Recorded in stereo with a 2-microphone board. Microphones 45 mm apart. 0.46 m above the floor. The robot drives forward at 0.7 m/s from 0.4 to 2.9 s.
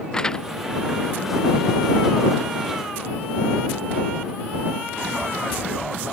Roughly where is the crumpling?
Centre.